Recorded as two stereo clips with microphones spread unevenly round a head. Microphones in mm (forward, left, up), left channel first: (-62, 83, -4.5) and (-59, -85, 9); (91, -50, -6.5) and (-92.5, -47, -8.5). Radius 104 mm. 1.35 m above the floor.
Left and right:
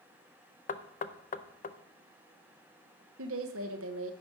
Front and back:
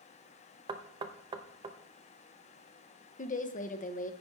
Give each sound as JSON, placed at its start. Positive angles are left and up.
{"t": 0.7, "sound": "knocking", "azimuth_deg": 120, "distance_m": 0.6}
{"t": 3.2, "sound": "a woman speaking", "azimuth_deg": -55, "distance_m": 0.9}